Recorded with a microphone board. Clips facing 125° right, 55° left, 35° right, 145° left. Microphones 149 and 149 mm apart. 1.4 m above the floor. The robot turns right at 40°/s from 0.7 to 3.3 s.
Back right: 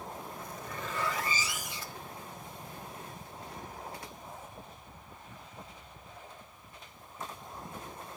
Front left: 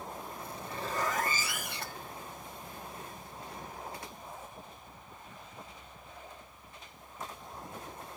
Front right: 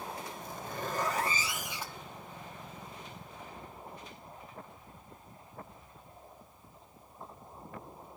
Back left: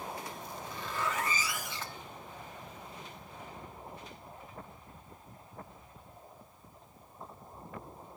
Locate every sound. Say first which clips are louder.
0.4 s a zipper: front left 3 dB, front right 3 dB; straight ahead, 1.4 m; by 2.1 s 55° left, 1.4 m